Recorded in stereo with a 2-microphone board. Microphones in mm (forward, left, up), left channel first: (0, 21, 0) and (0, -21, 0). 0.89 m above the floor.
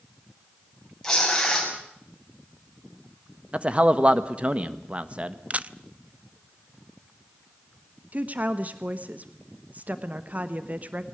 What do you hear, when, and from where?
1.0 s tearing paper: 15° left (ahead or behind), 6.5 m
3.5 s a man speaking: 30° right (ahead or behind), 1.3 m
5.5 s a camera shutter: 35° right (ahead or behind), 0.6 m
8.1 s a woman speaking: 40° right (ahead or behind), 1.1 m